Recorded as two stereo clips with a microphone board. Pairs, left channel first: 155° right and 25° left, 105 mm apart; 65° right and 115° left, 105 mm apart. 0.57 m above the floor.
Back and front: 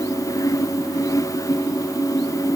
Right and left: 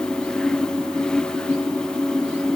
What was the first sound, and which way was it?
Only background noise.